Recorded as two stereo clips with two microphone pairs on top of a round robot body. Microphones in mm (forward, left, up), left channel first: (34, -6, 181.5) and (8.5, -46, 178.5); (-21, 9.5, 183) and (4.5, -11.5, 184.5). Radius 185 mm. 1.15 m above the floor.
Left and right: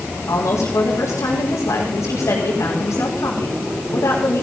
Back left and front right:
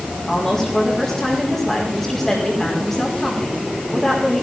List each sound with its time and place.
0.3 s a woman speaking: 65° left, 3.5 m